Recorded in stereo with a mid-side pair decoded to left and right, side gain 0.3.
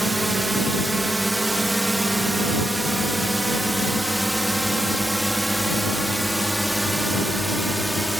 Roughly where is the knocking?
No knocking in this recording.